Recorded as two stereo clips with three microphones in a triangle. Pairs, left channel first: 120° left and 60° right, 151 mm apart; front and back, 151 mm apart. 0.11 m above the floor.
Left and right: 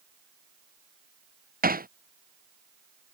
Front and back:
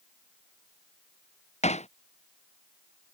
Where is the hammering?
45° right.